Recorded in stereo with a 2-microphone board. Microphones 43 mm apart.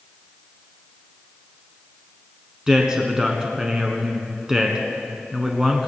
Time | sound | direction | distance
2.7 | a man speaking | 15° right (ahead or behind) | 1.5 m